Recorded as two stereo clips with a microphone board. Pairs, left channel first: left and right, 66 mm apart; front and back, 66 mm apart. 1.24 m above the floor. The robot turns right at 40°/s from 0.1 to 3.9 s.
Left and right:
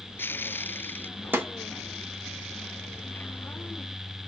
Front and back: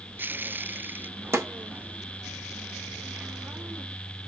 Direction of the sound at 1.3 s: 140° right.